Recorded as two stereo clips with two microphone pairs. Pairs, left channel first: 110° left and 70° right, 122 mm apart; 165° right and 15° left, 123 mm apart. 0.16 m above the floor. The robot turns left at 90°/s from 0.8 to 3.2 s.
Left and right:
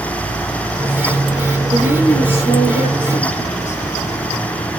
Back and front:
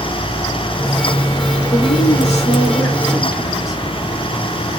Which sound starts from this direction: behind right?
A woman speaking, at 1.7 s.